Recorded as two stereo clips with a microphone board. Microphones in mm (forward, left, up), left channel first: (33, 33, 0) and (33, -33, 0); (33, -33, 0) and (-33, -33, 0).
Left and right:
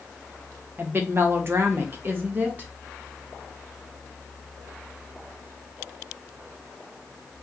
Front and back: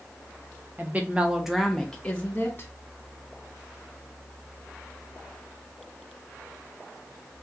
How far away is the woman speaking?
About 0.9 m.